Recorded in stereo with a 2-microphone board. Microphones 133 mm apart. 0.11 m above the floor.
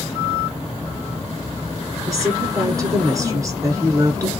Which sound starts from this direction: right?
A woman speaking, at 2.1 s.